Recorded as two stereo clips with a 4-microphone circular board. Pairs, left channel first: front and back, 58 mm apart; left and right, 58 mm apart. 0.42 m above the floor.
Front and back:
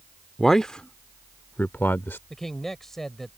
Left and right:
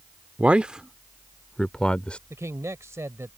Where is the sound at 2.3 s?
80° right.